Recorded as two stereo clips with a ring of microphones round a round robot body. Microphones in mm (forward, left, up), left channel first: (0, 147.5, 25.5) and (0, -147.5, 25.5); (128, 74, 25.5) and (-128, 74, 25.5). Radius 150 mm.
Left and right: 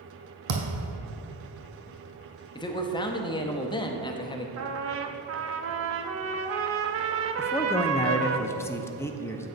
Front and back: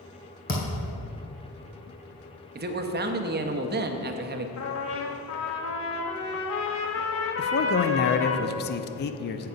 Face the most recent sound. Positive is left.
turn(degrees=15)